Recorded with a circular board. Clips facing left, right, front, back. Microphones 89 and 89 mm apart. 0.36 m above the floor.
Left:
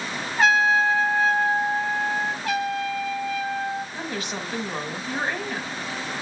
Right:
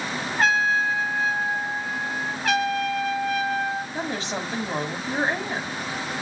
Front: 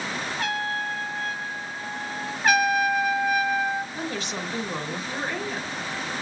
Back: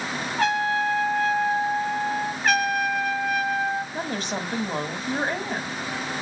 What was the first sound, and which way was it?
A trumpet, straight behind.